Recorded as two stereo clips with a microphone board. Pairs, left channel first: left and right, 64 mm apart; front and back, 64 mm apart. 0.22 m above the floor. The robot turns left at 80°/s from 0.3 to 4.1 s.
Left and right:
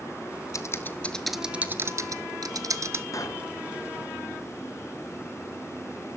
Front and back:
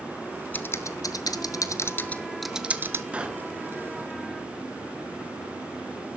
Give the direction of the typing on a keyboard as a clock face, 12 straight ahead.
10 o'clock.